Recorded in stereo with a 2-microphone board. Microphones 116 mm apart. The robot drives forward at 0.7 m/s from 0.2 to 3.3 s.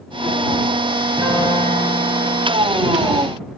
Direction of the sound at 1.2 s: 45° right (ahead or behind).